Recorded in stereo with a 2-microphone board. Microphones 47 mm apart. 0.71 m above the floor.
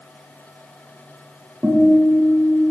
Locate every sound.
1.6 s a guitar: 60° right (ahead or behind), 1.3 m